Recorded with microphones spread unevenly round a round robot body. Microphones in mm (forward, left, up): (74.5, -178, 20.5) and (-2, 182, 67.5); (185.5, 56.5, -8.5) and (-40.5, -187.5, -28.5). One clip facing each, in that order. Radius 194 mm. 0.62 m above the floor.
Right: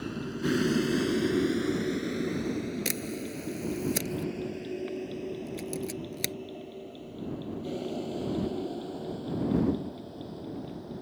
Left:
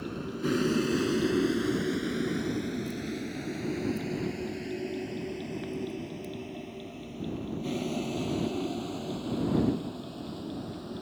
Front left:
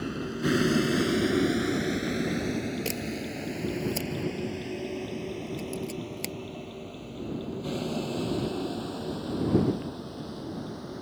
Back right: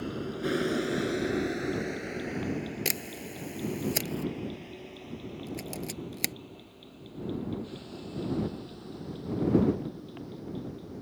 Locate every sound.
0.0 s a vehicle: 5° right; by 11.0 s 45° left
2.9 s a camera shutter: 80° right